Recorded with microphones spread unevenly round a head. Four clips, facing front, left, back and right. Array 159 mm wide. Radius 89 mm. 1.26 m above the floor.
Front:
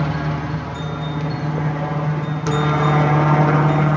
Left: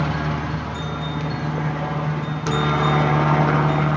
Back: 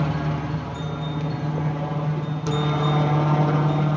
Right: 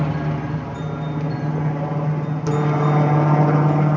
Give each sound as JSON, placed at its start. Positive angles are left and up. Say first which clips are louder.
{"t": 0.0, "sound": "a helicopter", "louder": "even, front 3 dB", "azimuth_deg": -65}